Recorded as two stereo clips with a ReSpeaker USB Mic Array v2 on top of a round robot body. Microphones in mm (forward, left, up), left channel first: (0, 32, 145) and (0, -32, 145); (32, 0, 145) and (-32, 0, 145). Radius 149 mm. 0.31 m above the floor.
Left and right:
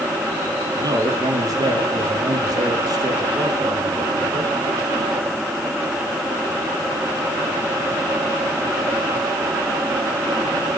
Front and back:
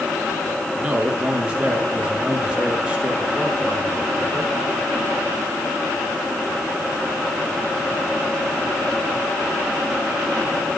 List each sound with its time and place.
0.8 s a man speaking: 105° right, 7 m